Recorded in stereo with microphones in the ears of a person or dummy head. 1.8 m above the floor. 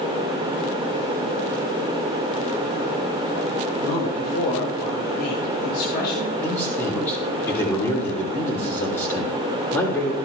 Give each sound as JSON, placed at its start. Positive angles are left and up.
{"t": 3.8, "sound": "a man speaking", "side_deg": 45, "distance_m": 7.0}
{"t": 6.4, "sound": "a man speaking", "side_deg": 15, "distance_m": 6.0}